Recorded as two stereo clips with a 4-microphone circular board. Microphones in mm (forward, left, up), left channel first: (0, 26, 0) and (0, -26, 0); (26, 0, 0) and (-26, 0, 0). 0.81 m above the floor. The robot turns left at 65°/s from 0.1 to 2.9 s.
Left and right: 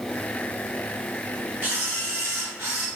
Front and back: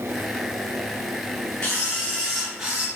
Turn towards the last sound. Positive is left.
turn(degrees=-120)